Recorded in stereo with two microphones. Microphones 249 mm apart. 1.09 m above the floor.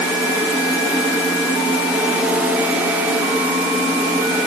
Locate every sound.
Only background noise.